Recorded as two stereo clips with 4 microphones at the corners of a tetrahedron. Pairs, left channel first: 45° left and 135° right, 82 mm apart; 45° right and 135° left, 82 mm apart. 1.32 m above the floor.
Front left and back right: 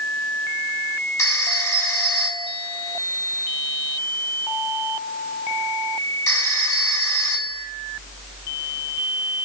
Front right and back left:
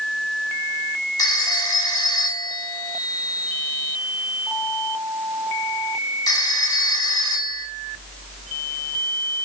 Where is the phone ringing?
5° right, 3.5 m.